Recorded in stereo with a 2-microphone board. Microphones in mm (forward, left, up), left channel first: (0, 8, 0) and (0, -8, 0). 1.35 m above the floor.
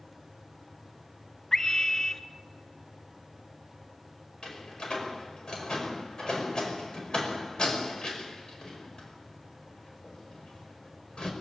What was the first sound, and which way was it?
A scream, 25° left (ahead or behind).